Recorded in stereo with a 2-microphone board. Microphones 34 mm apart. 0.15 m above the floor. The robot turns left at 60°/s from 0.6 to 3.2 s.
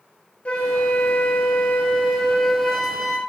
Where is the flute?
135° left, 0.8 m; by 3.2 s 20° right, 0.8 m.